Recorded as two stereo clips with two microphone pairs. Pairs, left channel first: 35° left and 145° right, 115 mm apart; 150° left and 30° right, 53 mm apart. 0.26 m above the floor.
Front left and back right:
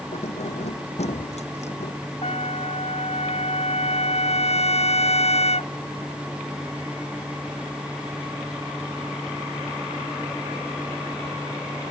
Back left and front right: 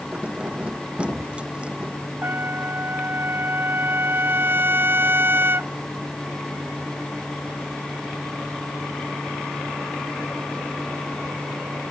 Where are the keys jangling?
35° left.